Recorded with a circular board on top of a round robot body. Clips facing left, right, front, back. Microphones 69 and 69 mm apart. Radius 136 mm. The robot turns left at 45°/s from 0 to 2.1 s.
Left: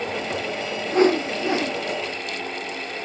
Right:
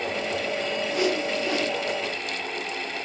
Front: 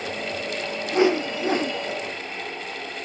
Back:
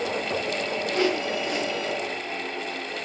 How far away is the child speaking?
No child speaking in this recording.